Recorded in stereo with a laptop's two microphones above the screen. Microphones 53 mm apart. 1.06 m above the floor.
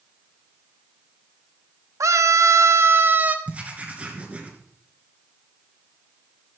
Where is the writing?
30° right (ahead or behind), 3 m.